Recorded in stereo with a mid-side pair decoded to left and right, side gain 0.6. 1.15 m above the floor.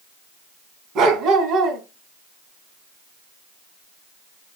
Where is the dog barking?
55° right, 3 m.